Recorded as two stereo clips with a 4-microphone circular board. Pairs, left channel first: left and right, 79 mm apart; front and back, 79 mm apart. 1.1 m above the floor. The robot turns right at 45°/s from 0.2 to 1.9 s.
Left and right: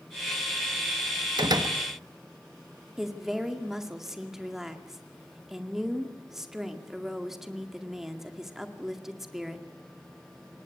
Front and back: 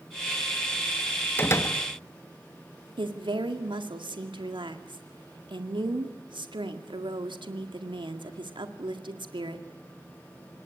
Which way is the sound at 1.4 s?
60° right.